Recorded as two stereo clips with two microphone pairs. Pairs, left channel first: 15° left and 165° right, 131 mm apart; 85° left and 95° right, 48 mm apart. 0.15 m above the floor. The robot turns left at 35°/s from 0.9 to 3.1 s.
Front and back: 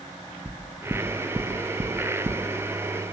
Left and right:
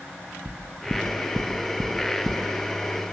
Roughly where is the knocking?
Right.